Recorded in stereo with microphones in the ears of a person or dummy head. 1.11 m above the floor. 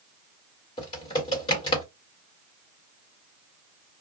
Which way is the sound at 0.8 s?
25° left (ahead or behind).